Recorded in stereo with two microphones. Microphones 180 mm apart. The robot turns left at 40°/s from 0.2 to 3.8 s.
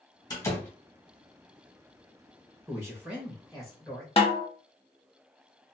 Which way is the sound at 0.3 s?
25° left (ahead or behind).